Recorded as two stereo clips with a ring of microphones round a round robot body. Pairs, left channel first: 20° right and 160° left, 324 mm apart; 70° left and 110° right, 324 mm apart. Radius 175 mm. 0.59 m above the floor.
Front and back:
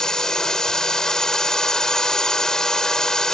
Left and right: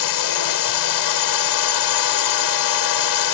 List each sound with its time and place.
0.0 s a drone: 65° left